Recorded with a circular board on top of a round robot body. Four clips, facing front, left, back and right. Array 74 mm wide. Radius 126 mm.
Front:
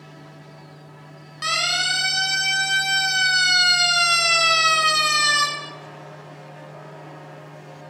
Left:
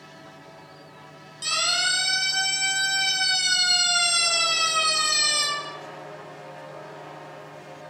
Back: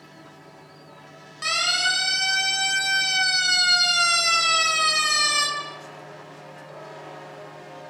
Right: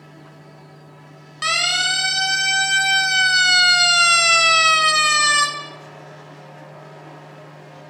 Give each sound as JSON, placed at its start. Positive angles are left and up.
{"t": 1.4, "sound": "a siren", "azimuth_deg": -85, "distance_m": 7.5}